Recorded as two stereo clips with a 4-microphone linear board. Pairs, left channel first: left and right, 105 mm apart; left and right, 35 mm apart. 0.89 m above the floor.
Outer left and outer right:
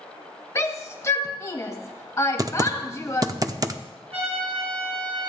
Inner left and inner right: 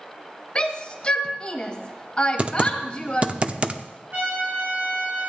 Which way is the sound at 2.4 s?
35° right (ahead or behind).